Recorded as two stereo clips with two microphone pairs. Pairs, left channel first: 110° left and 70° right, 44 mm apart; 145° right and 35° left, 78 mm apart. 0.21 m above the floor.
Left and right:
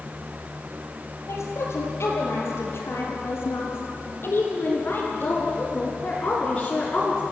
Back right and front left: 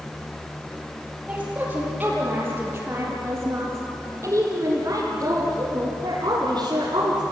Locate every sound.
1.3 s a woman speaking: 110° left, 6 m; by 7.2 s 35° left, 3.5 m